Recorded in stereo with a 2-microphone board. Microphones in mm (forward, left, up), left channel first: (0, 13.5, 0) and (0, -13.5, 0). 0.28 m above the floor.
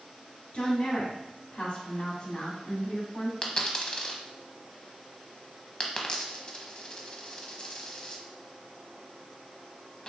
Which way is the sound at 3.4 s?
35° left (ahead or behind).